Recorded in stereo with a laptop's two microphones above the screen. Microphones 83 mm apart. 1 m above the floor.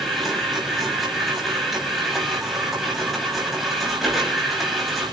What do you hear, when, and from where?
0.0 s a machine running: centre (ahead or behind), 8 m